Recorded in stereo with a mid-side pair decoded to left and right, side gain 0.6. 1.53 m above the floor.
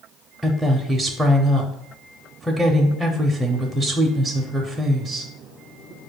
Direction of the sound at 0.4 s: 10° right.